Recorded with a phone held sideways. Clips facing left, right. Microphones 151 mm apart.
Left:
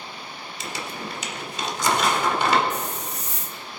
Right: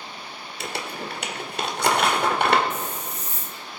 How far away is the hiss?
About 1.3 m.